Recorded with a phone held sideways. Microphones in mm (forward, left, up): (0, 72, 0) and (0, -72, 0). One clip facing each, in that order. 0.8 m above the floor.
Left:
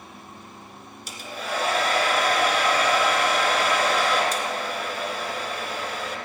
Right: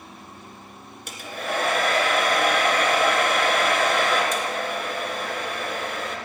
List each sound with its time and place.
1.1 s a hair dryer: 55° right (ahead or behind), 1.8 m